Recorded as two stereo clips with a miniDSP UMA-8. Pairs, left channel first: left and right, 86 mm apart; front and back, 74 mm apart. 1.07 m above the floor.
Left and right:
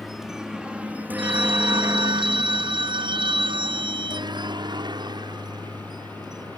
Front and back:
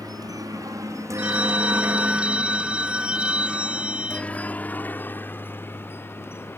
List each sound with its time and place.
0.0 s a helicopter: 175° right; by 6.6 s 55° right
1.2 s a phone ringing: 105° right